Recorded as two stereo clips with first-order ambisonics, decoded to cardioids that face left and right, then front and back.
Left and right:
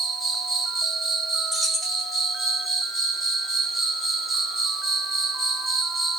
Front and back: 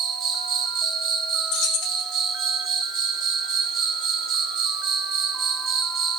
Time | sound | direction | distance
0.0 | an insect | 175° right | 1.4 m
1.5 | keys jangling | 5° right | 1.5 m